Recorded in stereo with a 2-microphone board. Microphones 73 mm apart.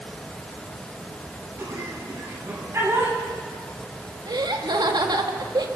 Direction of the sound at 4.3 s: 75° right (ahead or behind).